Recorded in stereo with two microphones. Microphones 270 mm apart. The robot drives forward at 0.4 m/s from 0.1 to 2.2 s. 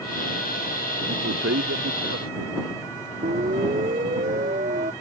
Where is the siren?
30° right (ahead or behind).